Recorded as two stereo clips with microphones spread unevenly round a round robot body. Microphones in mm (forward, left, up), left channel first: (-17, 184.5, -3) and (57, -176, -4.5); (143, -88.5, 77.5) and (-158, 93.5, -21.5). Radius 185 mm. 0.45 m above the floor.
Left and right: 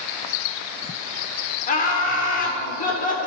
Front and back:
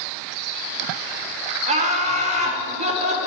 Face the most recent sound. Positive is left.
turn(degrees=155)